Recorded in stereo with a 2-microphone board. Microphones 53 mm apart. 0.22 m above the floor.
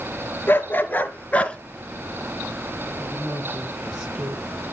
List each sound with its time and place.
0.5 s a dog barking: 40° left (ahead or behind), 1.5 m; by 1.6 s 20° left (ahead or behind), 1.1 m
3.0 s a woman speaking: 15° right (ahead or behind), 3 m